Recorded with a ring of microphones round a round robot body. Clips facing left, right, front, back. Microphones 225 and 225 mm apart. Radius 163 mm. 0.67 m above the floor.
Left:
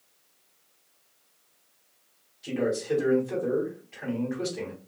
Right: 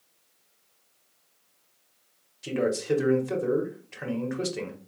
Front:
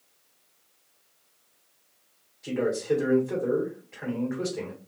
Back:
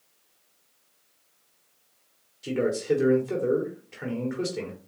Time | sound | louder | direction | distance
2.4 | a man speaking | right 1 dB, back 1 dB | 120° right | 1.5 m